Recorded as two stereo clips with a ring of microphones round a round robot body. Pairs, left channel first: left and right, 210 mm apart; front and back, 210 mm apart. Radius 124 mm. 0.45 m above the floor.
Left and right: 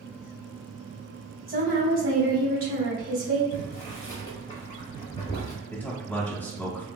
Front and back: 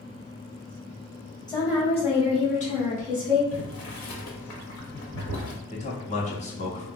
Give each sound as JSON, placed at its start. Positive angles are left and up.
{"t": 1.5, "sound": "a woman speaking", "azimuth_deg": -65, "distance_m": 1.6}
{"t": 3.5, "sound": "boiling", "azimuth_deg": 15, "distance_m": 0.8}
{"t": 5.7, "sound": "a man speaking", "azimuth_deg": 15, "distance_m": 0.9}